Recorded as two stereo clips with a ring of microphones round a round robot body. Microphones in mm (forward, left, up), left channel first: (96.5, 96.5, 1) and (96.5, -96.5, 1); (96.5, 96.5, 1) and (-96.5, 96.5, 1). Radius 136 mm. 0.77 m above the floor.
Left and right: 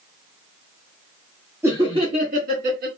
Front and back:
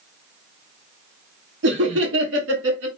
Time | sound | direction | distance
1.6 | laughter | 170° right | 1.0 m